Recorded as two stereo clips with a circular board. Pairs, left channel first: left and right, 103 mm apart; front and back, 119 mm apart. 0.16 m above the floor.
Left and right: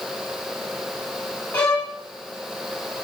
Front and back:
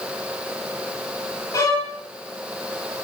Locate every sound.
1.5 s a violin: 30° left, 1.2 m